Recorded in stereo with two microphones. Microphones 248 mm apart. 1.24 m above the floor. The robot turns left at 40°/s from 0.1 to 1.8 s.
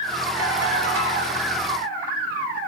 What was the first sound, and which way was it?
A ringtone, 100° right.